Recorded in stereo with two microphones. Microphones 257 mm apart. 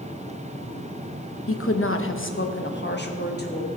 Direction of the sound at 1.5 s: 55° left (ahead or behind).